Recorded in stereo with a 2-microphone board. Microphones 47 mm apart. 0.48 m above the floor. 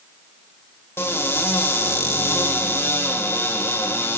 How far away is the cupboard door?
About 1.3 m.